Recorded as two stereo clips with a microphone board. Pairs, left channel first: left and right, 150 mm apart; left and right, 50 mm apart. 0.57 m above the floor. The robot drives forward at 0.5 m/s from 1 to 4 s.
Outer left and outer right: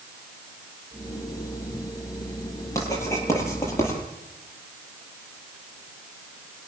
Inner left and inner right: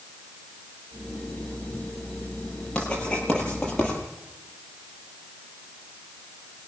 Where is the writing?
20° left (ahead or behind), 10 m.